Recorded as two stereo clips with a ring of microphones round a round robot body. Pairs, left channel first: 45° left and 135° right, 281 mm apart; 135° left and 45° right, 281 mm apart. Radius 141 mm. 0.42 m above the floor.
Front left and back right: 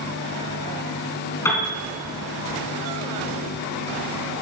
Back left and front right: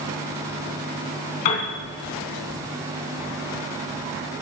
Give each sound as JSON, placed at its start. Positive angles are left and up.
{"t": 1.4, "sound": "a piano", "azimuth_deg": 125, "distance_m": 3.5}